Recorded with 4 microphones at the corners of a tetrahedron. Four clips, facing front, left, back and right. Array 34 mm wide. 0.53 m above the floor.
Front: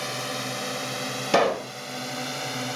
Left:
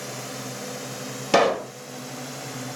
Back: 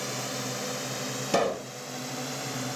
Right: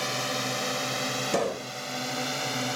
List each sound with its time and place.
0.0 s a drone: 55° right; by 2.8 s 50° right
1.3 s a pop: 65° left